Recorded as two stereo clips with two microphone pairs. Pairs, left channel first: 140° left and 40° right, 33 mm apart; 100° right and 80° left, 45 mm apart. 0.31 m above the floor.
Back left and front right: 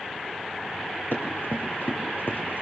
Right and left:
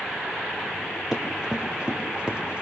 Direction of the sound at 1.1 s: 155° left.